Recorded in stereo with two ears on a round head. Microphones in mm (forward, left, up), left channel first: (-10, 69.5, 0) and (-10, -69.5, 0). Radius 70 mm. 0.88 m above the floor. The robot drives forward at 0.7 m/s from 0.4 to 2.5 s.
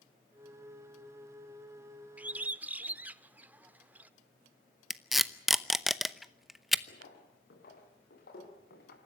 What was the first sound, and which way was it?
A bird, 10° right (ahead or behind).